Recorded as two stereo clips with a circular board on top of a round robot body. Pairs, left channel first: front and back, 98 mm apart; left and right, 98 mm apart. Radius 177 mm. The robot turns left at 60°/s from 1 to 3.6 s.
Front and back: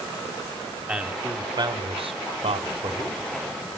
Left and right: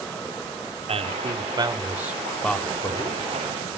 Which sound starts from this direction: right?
A man speaking, at 0.9 s.